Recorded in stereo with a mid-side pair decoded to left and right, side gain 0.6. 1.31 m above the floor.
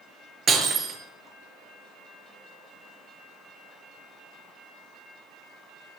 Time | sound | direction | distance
0.5 | breaking glass | 40° right | 5.5 m